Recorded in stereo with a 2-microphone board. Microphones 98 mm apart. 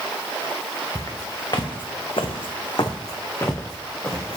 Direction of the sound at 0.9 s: 35° left (ahead or behind).